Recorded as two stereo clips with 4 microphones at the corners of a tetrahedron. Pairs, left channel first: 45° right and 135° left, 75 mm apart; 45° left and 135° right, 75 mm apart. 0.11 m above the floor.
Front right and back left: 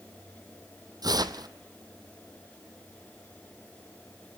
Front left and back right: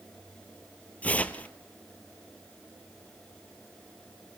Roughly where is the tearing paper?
Behind left.